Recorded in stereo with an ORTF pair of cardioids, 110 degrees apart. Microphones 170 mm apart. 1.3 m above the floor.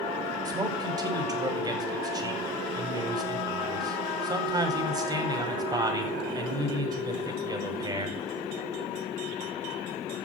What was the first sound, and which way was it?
A man speaking, 20° right.